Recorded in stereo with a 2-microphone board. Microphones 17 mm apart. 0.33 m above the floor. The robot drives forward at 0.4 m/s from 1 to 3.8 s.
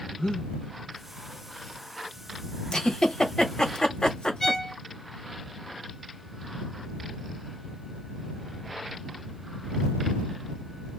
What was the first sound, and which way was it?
Breathing, 60° left (ahead or behind).